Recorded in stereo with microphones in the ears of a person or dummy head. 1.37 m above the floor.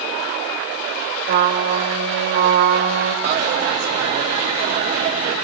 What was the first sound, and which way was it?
A trumpet, 65° right (ahead or behind).